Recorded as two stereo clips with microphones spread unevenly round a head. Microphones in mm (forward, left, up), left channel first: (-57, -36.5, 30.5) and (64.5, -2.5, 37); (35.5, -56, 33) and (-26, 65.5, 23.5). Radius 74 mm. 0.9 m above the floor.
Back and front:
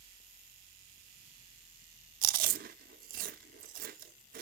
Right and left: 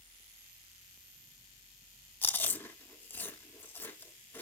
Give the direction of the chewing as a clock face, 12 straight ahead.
12 o'clock.